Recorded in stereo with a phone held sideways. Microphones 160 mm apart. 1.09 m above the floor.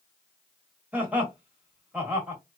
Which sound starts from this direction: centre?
Laughter, at 0.9 s.